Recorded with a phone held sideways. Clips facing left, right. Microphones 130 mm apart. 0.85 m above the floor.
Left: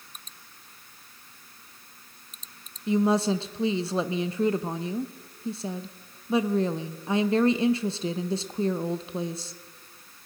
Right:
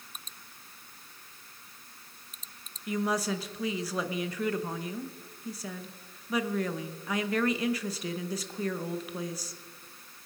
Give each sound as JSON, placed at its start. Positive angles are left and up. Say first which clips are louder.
{"t": 2.9, "sound": "a woman speaking", "louder": "left 7 dB", "side_deg": 25, "distance_m": 0.6}